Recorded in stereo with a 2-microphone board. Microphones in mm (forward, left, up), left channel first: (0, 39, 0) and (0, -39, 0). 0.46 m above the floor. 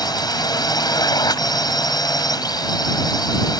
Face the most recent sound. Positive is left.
turn(degrees=60)  # may be behind; listen again after turning